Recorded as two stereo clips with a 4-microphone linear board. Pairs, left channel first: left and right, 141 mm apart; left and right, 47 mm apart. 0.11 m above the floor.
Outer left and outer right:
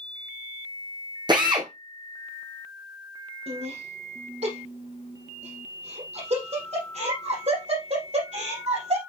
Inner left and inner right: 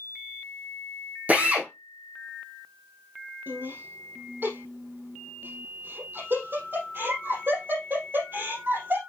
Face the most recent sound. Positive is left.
turn(degrees=-50)  # may be behind; listen again after turning